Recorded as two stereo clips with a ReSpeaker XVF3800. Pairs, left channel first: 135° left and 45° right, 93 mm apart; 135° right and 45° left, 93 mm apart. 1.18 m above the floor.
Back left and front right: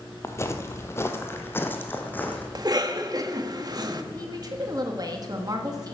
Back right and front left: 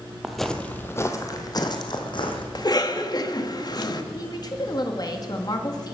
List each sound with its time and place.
0.2 s footsteps: 125° left, 1.3 m; by 2.5 s 155° right, 2.5 m
2.5 s a cough: 90° right, 1.6 m
4.1 s a woman speaking: 90° right, 2 m